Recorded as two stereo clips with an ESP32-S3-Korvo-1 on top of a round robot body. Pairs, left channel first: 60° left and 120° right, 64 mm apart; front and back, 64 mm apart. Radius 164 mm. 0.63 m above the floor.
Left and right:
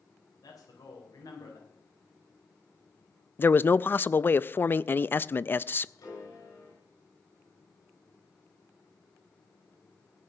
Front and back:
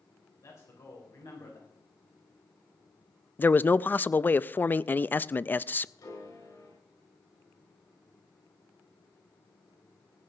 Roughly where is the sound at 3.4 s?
Ahead left.